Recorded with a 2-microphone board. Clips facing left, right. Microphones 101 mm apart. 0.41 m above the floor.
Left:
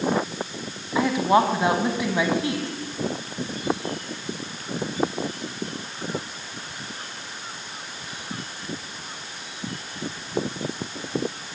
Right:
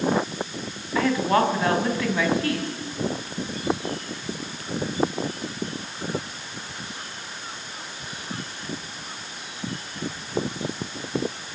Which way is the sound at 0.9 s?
15° left (ahead or behind).